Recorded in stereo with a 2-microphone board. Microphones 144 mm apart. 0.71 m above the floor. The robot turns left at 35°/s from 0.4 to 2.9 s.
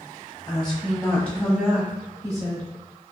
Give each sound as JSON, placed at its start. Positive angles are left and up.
{"t": 0.5, "sound": "a woman speaking", "azimuth_deg": 40, "distance_m": 0.9}